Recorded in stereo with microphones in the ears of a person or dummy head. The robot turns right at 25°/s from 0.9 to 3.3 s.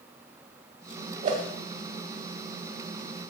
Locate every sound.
1.2 s a whoosh: 40° right (ahead or behind), 1.9 m; by 1.5 s 45° right (ahead or behind), 1.9 m